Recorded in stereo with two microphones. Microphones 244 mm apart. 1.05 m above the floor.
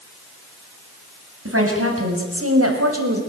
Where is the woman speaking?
65° right (ahead or behind), 7 m; by 3.2 s 75° right (ahead or behind), 5 m.